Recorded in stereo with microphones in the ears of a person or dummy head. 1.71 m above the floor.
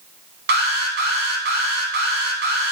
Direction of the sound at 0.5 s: 55° right (ahead or behind).